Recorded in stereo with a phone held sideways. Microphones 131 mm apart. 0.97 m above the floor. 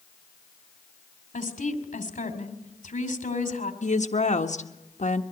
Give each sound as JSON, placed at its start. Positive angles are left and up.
{"t": 1.3, "sound": "a woman speaking", "side_deg": 75, "distance_m": 2.5}
{"t": 3.8, "sound": "a woman speaking", "side_deg": 65, "distance_m": 1.3}